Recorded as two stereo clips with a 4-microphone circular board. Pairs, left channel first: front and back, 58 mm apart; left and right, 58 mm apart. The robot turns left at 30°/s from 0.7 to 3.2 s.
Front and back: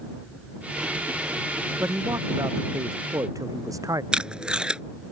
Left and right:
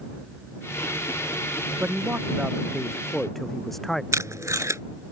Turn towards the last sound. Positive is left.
turn(degrees=-110)